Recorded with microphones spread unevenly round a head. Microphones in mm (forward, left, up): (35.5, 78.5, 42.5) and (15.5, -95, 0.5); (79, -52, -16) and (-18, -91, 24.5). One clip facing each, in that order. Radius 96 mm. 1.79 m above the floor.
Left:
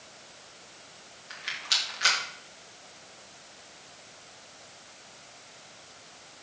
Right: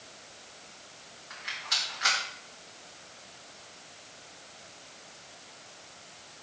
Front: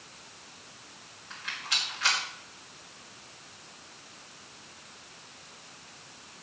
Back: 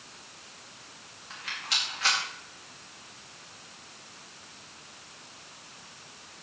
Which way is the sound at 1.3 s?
140° left.